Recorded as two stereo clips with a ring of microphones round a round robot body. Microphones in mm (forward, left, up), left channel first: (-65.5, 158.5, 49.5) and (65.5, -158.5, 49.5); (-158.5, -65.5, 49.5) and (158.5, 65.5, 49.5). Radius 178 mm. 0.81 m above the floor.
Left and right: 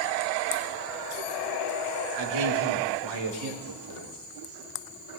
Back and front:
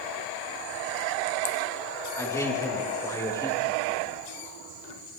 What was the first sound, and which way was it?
A man speaking, 75° right.